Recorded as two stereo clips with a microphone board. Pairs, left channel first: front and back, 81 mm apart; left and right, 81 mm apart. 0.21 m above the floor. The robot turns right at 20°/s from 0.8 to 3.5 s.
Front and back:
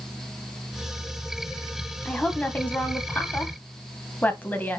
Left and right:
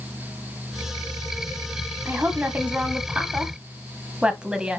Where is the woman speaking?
55° right, 1.3 m; by 4.8 s 25° right, 1.3 m.